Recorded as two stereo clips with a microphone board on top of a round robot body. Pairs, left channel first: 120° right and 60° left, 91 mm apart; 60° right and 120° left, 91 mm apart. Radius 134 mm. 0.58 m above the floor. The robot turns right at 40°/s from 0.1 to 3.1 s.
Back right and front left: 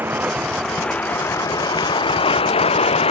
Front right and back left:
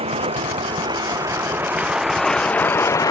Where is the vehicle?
130° left; by 3.1 s 115° right.